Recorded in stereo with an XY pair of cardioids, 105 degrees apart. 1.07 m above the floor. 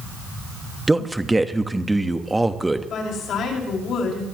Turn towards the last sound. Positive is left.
turn(degrees=65)